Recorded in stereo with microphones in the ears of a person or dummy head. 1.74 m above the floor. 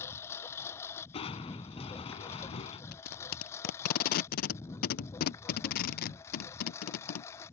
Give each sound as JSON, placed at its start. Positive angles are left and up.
{"t": 0.0, "sound": "a lawn mower", "side_deg": 15}
{"t": 1.1, "sound": "crushing", "side_deg": 25}
{"t": 2.9, "sound": "tape being pulled", "side_deg": 45}